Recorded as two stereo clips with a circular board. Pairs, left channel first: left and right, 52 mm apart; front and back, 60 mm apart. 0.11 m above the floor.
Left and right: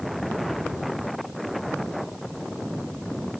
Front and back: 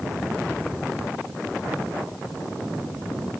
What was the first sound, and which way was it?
Only background noise.